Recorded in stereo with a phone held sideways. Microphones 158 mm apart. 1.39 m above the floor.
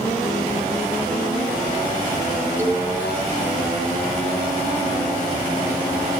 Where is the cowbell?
15° right (ahead or behind), 1.8 m.